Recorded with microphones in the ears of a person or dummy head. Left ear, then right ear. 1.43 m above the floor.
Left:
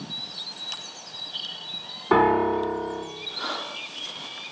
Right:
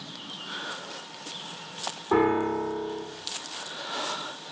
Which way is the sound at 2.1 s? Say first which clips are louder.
Left 4 dB; 85° left.